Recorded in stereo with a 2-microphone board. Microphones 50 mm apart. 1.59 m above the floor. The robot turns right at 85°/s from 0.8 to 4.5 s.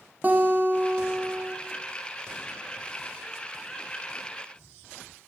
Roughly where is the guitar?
Behind right.